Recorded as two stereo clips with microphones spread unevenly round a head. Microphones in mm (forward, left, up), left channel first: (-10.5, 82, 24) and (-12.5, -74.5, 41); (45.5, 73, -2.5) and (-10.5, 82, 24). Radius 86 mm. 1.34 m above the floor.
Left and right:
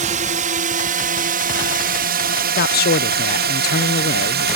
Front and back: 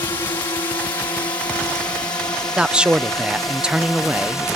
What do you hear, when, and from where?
0.0 s a drone: 50° right; by 4.6 s 90° right
2.6 s a man speaking: 85° left